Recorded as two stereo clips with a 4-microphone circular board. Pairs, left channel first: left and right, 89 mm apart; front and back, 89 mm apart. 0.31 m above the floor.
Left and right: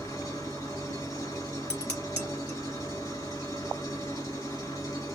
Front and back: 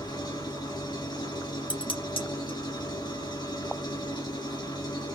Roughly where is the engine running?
Ahead left.